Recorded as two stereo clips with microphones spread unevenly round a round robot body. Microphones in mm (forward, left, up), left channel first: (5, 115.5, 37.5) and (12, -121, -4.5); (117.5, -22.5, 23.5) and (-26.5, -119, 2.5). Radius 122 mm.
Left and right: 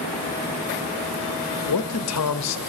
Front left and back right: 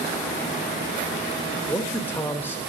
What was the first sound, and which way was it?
A man speaking, 120° left.